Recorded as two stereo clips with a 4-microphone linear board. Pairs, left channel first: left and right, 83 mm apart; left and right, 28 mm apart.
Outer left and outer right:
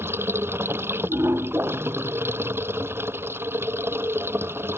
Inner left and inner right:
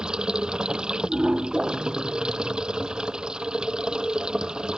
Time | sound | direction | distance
0.0 | running water | 30° right (ahead or behind) | ?